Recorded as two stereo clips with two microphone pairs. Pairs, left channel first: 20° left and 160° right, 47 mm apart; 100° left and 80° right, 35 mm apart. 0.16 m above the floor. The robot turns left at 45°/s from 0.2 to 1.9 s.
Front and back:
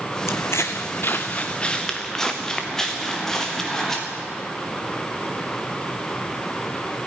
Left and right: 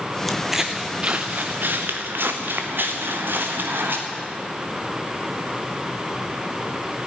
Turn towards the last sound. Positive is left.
turn(degrees=-60)